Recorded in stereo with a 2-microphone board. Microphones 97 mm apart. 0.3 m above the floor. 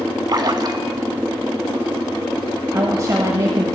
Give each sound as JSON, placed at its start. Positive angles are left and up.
{"t": 0.3, "sound": "a splash", "side_deg": -45, "distance_m": 0.7}
{"t": 2.7, "sound": "a woman speaking", "side_deg": -35, "distance_m": 1.1}